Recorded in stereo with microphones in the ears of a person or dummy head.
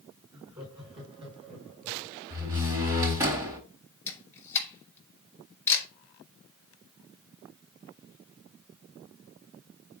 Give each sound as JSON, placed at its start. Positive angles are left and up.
{"t": 0.3, "sound": "laughter", "side_deg": -20, "distance_m": 4.0}
{"t": 2.3, "sound": "a door slam", "side_deg": -20, "distance_m": 4.5}
{"t": 4.1, "sound": "a camera shutter", "side_deg": 15, "distance_m": 2.5}